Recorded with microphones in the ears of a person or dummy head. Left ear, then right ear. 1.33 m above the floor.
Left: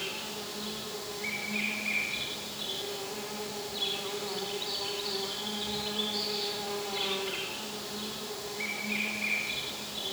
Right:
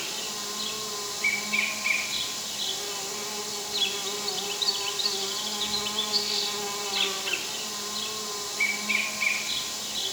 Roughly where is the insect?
Right.